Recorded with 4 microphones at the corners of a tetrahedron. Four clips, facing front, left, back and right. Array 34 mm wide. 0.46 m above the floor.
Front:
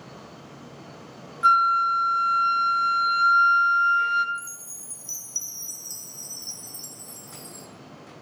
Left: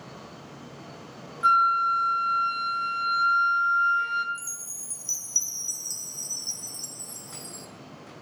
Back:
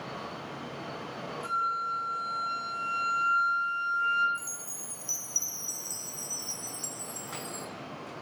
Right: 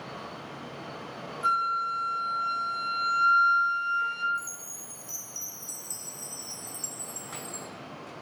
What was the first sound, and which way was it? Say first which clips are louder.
A flute: left 6 dB, front 12 dB; 20° left.